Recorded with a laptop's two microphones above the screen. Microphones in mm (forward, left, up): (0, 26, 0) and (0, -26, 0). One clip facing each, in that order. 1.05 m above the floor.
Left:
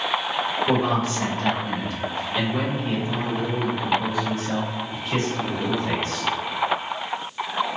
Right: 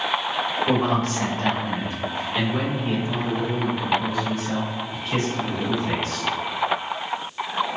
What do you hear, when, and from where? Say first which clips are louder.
0.7 s a man speaking: right 1 dB; 60° right (ahead or behind), 1.2 m; by 6.3 s 35° left (ahead or behind), 2.5 m